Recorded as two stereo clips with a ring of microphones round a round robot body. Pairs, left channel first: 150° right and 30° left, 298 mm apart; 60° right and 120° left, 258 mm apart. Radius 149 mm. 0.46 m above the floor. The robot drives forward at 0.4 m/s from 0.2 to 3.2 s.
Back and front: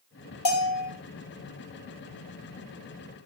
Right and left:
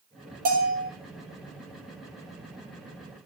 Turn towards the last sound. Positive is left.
turn(degrees=-175)